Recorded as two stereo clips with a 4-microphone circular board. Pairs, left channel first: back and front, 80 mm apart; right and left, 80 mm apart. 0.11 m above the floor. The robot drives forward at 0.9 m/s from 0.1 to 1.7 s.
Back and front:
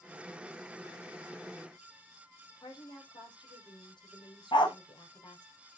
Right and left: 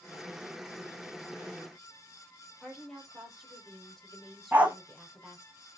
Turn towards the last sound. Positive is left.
turn(degrees=160)